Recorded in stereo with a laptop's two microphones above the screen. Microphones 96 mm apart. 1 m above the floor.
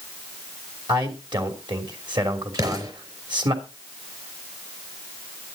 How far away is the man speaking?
About 3 m.